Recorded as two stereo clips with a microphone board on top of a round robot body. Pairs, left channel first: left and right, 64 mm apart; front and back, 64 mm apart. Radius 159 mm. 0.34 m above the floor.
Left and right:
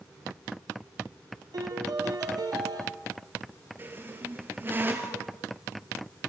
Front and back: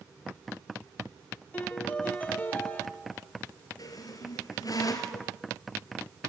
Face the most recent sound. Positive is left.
turn(degrees=-30)